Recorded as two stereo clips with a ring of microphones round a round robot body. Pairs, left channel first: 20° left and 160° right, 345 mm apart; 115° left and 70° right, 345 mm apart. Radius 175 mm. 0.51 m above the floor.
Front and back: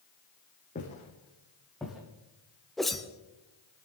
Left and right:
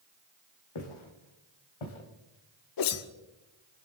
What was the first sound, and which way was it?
Footsteps, 90° left.